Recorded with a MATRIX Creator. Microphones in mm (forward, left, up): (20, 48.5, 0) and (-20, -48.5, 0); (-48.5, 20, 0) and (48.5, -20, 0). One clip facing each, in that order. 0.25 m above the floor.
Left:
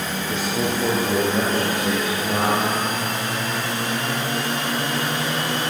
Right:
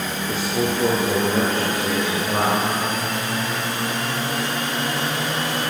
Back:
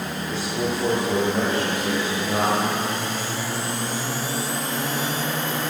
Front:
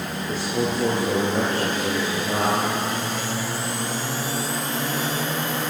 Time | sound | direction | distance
0.3 | a man speaking | 65° right | 3.5 m